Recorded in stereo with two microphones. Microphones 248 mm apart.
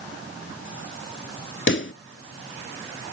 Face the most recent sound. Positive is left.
turn(degrees=50)  # may be behind; listen again after turning